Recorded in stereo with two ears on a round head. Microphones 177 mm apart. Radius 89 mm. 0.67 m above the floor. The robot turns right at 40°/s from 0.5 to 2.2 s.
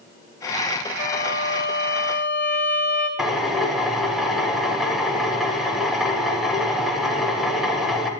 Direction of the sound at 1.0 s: 125° left.